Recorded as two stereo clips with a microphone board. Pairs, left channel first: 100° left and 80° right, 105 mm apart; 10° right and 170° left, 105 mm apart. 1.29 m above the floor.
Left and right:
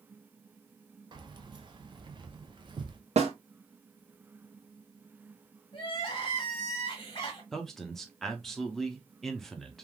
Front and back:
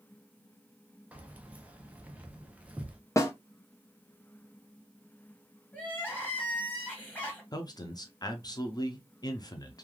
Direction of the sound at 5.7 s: 60° left.